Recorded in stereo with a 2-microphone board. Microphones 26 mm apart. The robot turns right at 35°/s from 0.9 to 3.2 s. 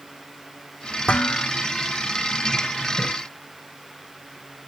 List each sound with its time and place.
1.1 s dishes clattering: 50° left (ahead or behind), 2.5 m; by 1.5 s 60° left (ahead or behind), 2.5 m
3.0 s a splash: 60° right (ahead or behind), 5 m; by 3.1 s 65° right (ahead or behind), 5 m